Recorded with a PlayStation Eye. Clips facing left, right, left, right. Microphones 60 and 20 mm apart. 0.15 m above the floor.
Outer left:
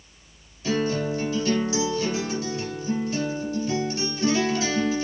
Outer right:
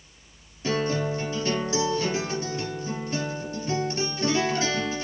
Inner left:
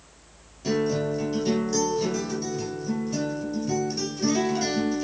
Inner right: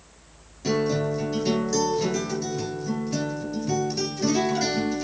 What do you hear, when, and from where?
0.6 s a guitar: 30° right (ahead or behind), 3 m